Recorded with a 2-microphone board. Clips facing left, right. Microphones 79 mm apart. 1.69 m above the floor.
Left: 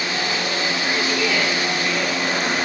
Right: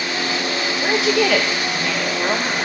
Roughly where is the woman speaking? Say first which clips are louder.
Right 8 dB; right.